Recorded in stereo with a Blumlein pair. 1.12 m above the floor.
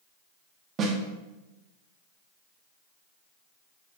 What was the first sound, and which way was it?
A snare drum, 25° right.